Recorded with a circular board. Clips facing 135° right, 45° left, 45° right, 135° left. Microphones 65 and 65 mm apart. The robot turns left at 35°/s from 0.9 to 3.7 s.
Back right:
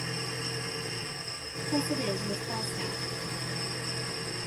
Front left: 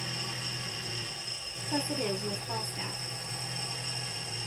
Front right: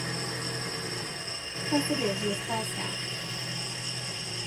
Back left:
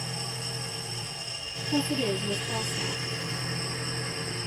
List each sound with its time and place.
0.0 s an engine running: 75° right, 1.1 m; by 4.5 s 170° right, 1.1 m
1.7 s a woman speaking: 5° right, 1.1 m; by 3.0 s 50° right, 1.1 m